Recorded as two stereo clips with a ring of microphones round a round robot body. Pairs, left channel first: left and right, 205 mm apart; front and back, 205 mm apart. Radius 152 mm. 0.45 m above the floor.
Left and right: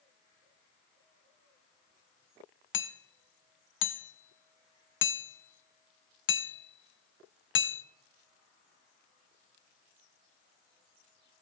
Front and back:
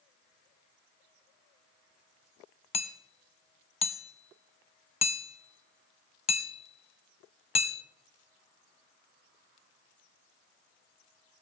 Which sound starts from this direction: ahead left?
Hammering, at 2.7 s.